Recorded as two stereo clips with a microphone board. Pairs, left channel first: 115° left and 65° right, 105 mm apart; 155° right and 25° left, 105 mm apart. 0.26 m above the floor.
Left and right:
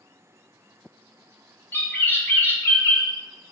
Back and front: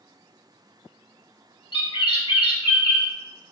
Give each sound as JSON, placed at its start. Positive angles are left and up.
{"t": 1.7, "sound": "a bird", "azimuth_deg": 180, "distance_m": 1.0}